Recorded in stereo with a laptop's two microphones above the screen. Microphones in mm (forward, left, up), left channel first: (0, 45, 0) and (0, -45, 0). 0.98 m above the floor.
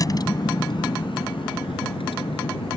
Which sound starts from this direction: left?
A vehicle, at 0.0 s.